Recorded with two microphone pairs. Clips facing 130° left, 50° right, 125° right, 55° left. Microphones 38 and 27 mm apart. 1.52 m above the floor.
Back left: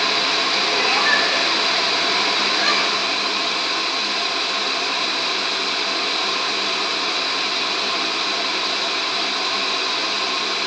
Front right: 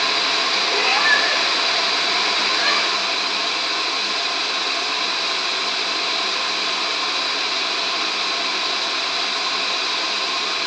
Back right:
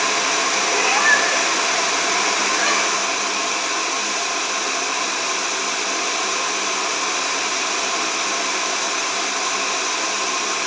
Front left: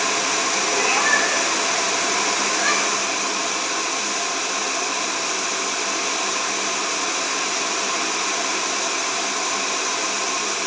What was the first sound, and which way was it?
A cat meowing, 90° right.